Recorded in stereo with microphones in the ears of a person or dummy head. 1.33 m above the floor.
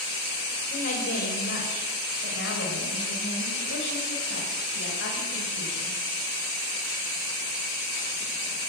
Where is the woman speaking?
50° left (ahead or behind), 5.5 m; by 6.0 s 70° left (ahead or behind), 8.5 m.